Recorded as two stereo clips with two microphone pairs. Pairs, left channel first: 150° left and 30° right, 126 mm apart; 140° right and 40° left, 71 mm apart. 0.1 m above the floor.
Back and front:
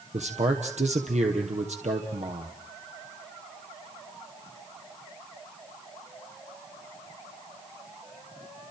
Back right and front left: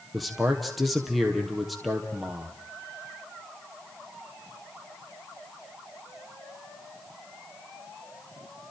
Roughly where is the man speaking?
Ahead right.